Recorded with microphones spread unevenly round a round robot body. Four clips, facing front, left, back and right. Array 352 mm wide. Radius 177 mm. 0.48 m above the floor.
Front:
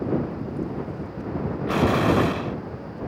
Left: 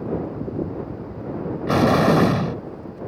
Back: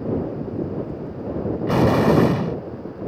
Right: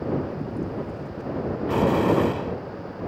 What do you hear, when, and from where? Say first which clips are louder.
1.7 s an explosion: left 4 dB, back 4 dB; 115° left